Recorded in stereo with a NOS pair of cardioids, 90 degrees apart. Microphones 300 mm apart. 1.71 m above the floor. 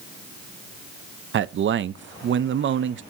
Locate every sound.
1.3 s a man speaking: 40° right, 0.6 m